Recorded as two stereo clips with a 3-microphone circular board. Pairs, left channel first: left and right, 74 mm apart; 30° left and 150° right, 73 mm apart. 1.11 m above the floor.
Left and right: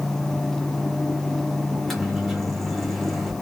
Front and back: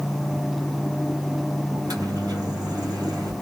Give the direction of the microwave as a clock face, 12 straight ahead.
6 o'clock.